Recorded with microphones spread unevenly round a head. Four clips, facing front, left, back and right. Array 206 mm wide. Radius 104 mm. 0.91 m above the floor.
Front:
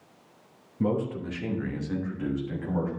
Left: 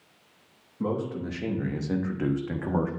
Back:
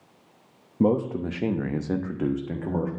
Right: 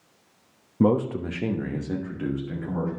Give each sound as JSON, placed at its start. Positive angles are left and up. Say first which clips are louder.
{"t": 0.8, "sound": "a man speaking", "louder": "right 8 dB, back 5 dB", "azimuth_deg": -135, "distance_m": 1.0}